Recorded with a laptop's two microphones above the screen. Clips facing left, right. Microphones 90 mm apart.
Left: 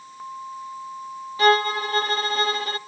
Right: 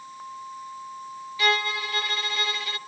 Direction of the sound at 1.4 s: 40° left (ahead or behind).